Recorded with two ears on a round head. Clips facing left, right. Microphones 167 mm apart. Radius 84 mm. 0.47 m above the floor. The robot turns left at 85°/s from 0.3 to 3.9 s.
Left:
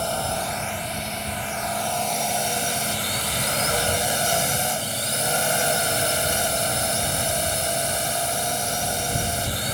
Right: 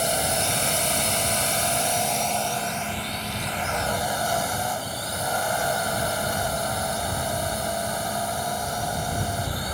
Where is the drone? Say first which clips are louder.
Right 1 dB; 20° right; by 9.7 s 35° left.